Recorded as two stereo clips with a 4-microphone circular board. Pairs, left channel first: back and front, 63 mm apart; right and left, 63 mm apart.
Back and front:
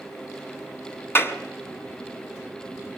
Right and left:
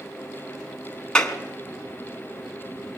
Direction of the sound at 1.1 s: 160° right.